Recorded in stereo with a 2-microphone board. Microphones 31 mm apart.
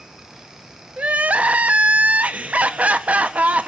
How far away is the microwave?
I don't hear a microwave.